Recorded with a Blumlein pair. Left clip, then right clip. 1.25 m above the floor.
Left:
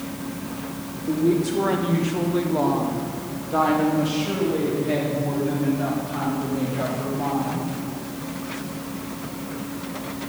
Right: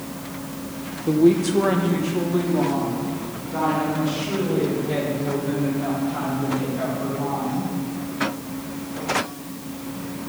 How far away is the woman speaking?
About 1.0 m.